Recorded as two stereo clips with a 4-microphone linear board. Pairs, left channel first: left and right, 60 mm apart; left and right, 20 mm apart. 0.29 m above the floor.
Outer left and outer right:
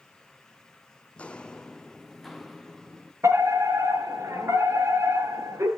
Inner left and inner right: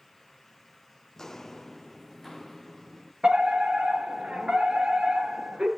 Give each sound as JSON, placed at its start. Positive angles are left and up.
{"t": 1.2, "sound": "footsteps", "side_deg": 20, "distance_m": 0.8}
{"t": 3.2, "sound": "a fire alarm", "side_deg": -60, "distance_m": 7.5}